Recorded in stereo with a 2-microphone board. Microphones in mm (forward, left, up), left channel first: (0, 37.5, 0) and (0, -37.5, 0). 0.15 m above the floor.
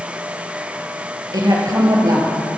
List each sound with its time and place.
1.3 s a woman speaking: 55° right (ahead or behind), 3.5 m